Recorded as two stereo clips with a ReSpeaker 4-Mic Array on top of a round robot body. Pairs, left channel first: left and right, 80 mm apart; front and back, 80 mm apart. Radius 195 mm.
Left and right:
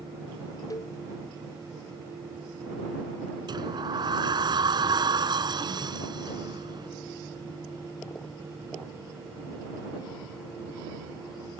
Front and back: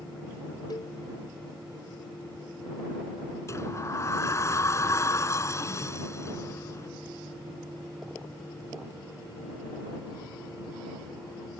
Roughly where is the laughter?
No laughter in this recording.